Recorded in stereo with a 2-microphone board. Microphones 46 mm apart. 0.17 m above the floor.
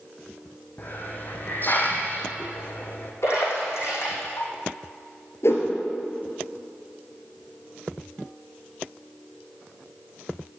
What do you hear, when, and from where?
0.8 s a hiss: 40° left (ahead or behind), 1.9 m
3.2 s a splash: 65° left (ahead or behind), 6.5 m
5.4 s a whoosh: 65° left (ahead or behind), 3 m